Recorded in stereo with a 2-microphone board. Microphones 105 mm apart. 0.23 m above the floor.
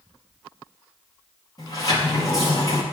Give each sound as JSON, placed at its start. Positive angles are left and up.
{"t": 1.6, "sound": "a sliding door", "side_deg": 40, "distance_m": 4.5}